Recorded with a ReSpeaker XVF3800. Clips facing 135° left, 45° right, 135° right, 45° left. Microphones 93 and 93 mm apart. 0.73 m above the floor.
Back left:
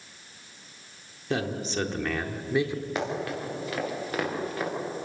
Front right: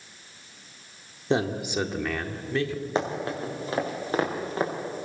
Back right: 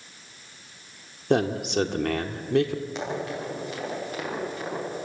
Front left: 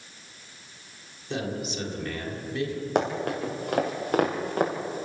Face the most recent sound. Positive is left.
turn(degrees=15)